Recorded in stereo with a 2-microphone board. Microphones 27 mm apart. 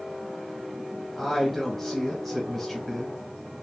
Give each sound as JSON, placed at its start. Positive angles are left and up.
{"t": 1.2, "sound": "a woman speaking", "side_deg": 10, "distance_m": 1.4}